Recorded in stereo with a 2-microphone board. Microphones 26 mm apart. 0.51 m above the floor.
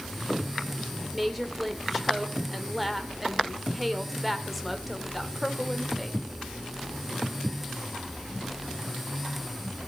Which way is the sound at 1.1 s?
Centre (ahead or behind).